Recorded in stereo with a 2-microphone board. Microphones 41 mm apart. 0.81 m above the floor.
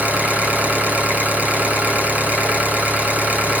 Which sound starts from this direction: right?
An engine running, at 0.0 s.